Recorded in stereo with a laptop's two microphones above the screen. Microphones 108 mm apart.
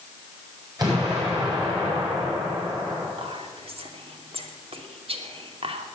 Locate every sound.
0.8 s an explosion: 40° right (ahead or behind), 8 m
3.2 s whispering: 60° right (ahead or behind), 2.5 m